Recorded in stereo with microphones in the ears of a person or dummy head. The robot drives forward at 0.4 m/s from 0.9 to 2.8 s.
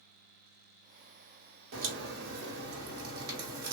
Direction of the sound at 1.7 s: 75° right (ahead or behind).